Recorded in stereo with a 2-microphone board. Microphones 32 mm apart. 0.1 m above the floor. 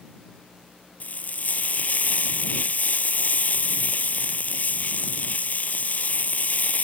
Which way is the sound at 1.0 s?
55° left (ahead or behind).